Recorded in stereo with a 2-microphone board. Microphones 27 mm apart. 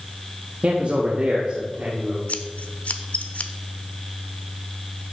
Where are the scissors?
55° left (ahead or behind), 0.7 m.